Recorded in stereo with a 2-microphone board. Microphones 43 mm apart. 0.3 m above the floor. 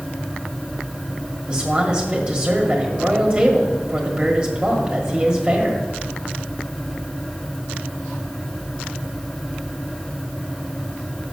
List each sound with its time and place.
1.5 s a man speaking: 25° right (ahead or behind), 1.4 m